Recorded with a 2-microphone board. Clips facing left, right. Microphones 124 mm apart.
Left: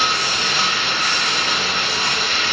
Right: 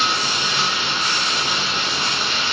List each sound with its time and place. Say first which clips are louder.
0.0 s running water: left 1 dB; 70° left (ahead or behind), 2 m